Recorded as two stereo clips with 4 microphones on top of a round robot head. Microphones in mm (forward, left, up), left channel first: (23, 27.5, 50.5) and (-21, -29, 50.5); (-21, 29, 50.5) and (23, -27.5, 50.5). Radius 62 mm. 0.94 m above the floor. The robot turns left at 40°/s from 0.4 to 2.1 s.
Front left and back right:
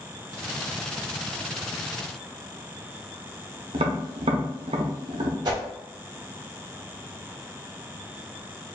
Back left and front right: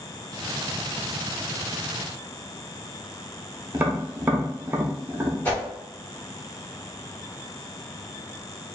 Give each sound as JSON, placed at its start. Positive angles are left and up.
{"t": 3.7, "sound": "tapping", "azimuth_deg": -120, "distance_m": 0.7}
{"t": 5.5, "sound": "a whoosh", "azimuth_deg": -165, "distance_m": 1.5}